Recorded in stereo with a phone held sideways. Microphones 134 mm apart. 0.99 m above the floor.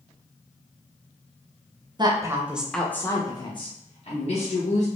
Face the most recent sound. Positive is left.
turn(degrees=60)  # may be behind; listen again after turning